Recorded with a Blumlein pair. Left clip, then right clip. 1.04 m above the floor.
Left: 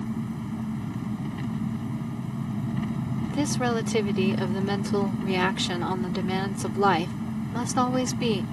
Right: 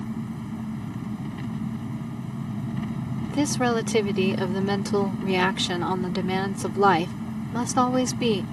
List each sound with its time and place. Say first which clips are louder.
0.0 s an engine running: left 1 dB; 5° left
3.3 s a woman speaking: right 3 dB; 10° right